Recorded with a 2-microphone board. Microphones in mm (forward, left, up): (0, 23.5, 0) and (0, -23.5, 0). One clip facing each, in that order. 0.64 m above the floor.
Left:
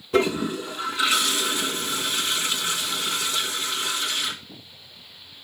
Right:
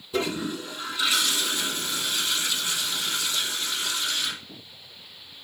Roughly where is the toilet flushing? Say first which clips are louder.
Left 6 dB; left.